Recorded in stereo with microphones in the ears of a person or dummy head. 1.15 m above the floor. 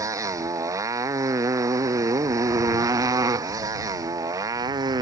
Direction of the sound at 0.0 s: 15° right (ahead or behind).